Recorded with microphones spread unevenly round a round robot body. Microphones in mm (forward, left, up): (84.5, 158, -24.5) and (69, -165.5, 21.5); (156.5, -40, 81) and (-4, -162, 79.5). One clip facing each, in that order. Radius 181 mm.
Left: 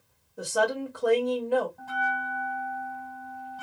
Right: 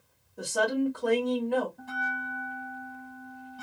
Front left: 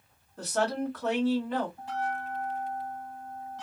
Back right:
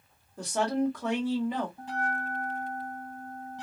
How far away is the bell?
About 2 m.